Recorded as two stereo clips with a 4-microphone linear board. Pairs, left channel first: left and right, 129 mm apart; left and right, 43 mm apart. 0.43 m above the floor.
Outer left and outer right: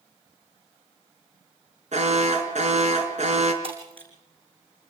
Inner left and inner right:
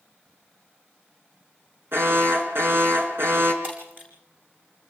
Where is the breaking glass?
45° right (ahead or behind), 7 m.